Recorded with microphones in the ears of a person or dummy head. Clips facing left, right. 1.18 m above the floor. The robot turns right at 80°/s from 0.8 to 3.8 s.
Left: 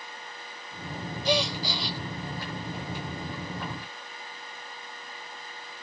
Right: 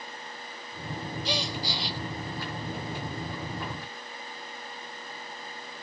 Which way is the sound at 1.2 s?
45° left.